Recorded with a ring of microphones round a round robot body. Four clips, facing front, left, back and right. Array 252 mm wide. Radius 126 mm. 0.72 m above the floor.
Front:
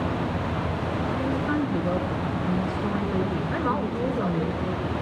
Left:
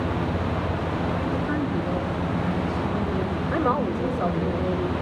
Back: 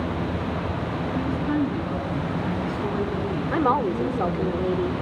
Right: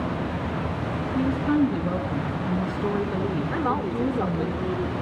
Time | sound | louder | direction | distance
1.1 | a woman speaking | right 4 dB, back 3 dB | 120° right | 9 m
3.5 | a woman speaking | left 5 dB, back 8 dB | 175° left | 2.5 m